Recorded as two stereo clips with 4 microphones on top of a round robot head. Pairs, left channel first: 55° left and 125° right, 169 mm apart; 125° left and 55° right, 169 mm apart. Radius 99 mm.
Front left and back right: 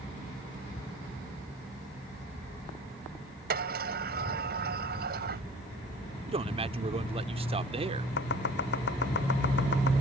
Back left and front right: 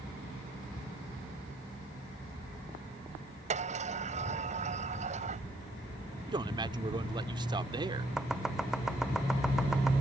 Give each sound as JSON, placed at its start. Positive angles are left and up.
{"t": 3.5, "sound": "a sliding door", "azimuth_deg": -100}
{"t": 6.3, "sound": "a man speaking", "azimuth_deg": -100}
{"t": 8.2, "sound": "chopping", "azimuth_deg": 30}